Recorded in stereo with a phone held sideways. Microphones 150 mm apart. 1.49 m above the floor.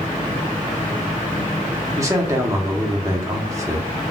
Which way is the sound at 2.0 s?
20° right (ahead or behind).